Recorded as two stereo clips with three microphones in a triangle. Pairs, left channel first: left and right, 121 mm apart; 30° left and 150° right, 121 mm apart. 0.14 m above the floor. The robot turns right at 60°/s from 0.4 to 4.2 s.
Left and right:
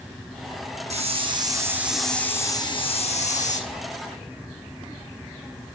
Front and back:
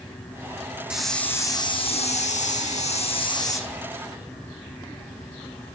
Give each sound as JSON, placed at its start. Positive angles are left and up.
{"t": 0.9, "sound": "a hiss", "azimuth_deg": -65, "distance_m": 1.4}